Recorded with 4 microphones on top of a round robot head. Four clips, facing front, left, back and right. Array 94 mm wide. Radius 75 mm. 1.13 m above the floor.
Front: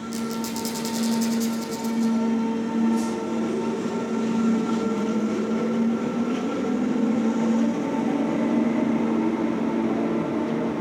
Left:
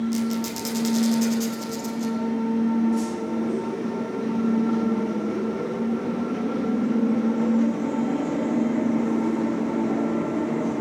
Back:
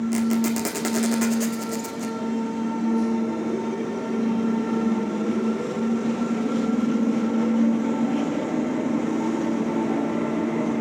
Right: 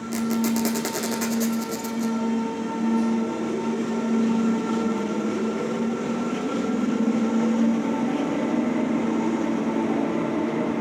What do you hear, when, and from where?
0.1 s a squeak: 140° right, 2 m